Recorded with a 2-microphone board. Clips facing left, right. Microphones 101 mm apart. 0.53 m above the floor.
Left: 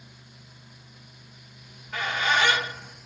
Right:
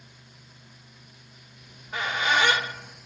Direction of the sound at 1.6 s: 20° right (ahead or behind).